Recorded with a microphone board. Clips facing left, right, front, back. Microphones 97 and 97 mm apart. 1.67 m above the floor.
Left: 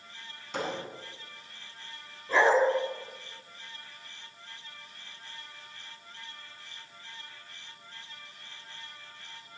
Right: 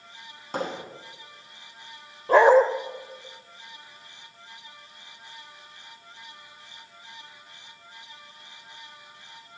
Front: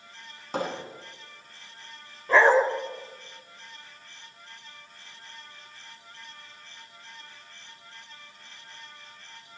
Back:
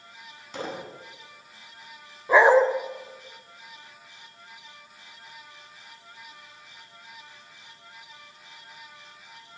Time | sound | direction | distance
0.5 | hammering | 45° right | 9.5 m
2.3 | a dog barking | 105° right | 2.5 m